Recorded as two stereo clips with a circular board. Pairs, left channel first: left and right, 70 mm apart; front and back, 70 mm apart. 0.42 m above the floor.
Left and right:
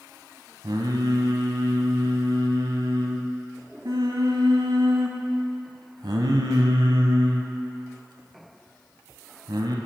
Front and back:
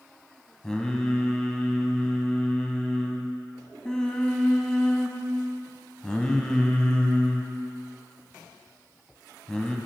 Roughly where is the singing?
Right.